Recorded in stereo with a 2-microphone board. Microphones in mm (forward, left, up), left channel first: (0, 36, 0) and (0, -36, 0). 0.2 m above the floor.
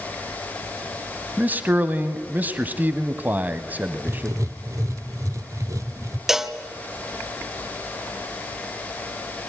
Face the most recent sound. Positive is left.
turn(degrees=-5)  # may be behind; listen again after turning